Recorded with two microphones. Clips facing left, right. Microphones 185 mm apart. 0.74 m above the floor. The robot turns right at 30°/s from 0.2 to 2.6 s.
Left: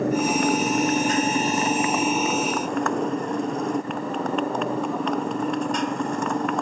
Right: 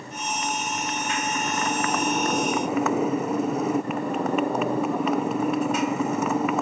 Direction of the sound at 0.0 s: 115° left.